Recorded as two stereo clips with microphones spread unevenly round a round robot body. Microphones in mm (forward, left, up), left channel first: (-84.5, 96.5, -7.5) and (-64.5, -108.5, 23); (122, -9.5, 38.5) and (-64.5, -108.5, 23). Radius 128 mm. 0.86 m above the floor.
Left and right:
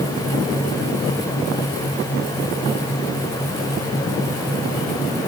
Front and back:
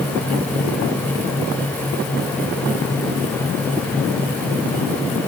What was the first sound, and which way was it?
Only background noise.